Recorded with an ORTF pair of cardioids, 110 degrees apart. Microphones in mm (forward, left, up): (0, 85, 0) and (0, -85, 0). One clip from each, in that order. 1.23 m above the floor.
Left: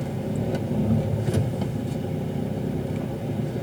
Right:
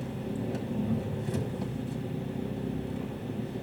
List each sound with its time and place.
0.0 s an engine running: 55° left, 1.1 m